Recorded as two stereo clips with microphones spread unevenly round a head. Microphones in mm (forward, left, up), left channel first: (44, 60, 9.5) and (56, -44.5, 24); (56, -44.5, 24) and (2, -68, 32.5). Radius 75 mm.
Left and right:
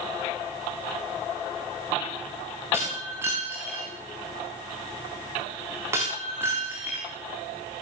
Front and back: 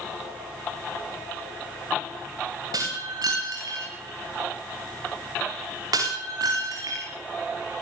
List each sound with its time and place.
2.7 s breaking glass: 160° right, 8.5 m